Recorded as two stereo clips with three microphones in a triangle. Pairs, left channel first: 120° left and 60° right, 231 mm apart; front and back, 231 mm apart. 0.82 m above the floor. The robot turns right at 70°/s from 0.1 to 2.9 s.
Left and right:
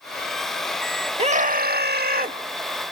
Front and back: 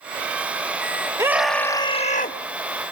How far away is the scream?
About 1.3 m.